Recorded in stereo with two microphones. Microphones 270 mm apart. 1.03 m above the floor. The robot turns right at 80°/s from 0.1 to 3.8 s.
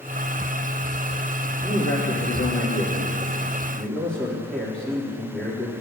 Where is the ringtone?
I don't hear a ringtone.